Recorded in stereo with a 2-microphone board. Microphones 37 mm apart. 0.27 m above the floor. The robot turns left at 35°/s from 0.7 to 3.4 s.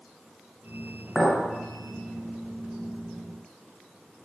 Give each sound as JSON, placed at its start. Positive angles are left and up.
{"t": 1.1, "sound": "a clink", "side_deg": 5, "distance_m": 0.6}